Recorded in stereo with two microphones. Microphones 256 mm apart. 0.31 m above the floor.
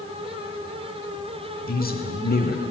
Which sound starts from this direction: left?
A man speaking, at 1.6 s.